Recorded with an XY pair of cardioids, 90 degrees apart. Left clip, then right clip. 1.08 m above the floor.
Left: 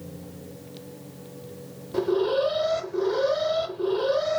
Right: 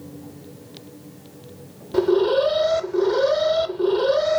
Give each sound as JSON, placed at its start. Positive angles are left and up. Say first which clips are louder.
{"t": 1.9, "sound": "an alarm", "louder": "right 5 dB", "azimuth_deg": -45, "distance_m": 0.6}